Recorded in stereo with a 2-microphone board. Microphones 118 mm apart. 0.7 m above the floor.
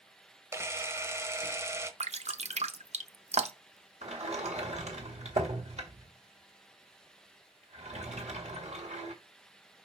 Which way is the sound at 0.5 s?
25° right (ahead or behind).